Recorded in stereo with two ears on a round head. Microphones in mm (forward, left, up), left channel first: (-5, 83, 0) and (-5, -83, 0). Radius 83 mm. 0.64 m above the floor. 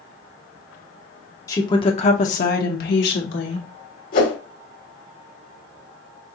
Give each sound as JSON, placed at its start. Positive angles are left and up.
{"t": 1.5, "sound": "a woman speaking", "side_deg": 15, "distance_m": 1.0}
{"t": 4.1, "sound": "a whoosh", "side_deg": 50, "distance_m": 1.1}